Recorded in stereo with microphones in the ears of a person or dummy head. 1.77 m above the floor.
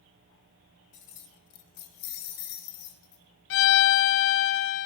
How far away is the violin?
About 0.6 m.